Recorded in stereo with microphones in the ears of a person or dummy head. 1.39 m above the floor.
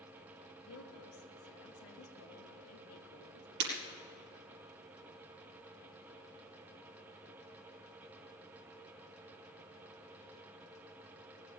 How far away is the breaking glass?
About 4.5 m.